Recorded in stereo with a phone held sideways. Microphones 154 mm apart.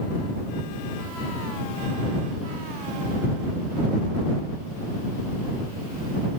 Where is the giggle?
No giggle in this recording.